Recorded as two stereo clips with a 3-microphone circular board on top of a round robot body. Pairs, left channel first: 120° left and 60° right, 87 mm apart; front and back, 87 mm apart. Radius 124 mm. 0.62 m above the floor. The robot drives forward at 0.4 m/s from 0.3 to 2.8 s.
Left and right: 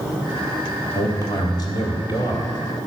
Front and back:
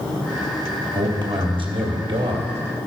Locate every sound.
0.9 s a man speaking: 160° left, 1.6 m; by 2.9 s 165° left, 2.5 m